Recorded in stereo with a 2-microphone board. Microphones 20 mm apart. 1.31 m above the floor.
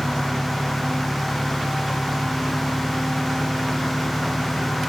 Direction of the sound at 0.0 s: 75° left (ahead or behind).